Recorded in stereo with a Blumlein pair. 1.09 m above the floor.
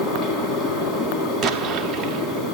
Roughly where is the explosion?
Ahead.